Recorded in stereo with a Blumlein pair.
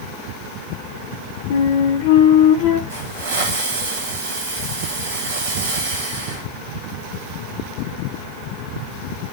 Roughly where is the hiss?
Ahead right.